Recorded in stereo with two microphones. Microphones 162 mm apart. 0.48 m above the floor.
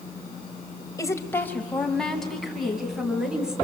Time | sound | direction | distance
1.0 | a woman speaking | 20° left (ahead or behind) | 1.9 m